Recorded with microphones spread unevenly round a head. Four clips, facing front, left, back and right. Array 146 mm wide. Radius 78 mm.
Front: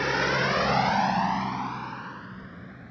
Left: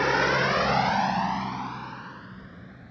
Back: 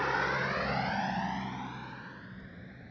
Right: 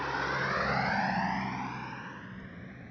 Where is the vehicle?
55° left; by 2.9 s 20° right.